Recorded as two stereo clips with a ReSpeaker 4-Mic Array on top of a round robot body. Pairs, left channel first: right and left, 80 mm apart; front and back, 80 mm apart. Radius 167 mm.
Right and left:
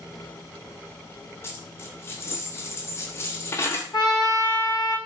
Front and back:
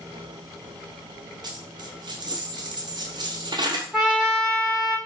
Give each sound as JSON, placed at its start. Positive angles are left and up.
{"t": 1.4, "sound": "a dropped coin", "azimuth_deg": -150, "distance_m": 0.9}
{"t": 3.9, "sound": "a trumpet", "azimuth_deg": -95, "distance_m": 2.0}